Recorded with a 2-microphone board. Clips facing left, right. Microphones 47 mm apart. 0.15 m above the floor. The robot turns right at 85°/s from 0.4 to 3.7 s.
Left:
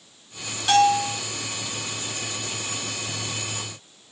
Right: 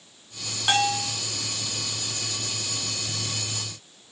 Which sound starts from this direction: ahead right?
A bell, at 0.7 s.